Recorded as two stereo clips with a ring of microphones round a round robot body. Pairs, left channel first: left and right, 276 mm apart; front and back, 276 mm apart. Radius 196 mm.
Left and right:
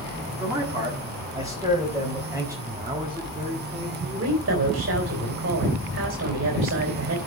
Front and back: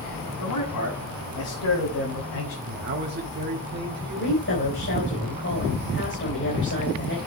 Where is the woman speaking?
55° right, 3.5 m.